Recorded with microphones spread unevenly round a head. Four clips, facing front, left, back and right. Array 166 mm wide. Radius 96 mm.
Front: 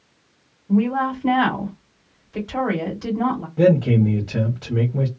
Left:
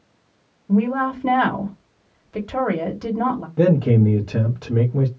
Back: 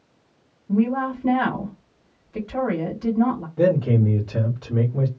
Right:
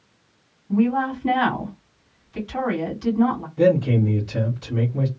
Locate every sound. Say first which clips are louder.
0.7 s a woman speaking: left 1 dB, front 2 dB; 95° left, 1.3 m
3.6 s a man speaking: left 1 dB, front 3 dB; 65° left, 1.0 m